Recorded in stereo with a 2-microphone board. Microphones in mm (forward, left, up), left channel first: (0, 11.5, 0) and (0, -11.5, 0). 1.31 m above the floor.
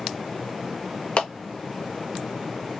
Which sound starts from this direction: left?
A clap, at 1.2 s.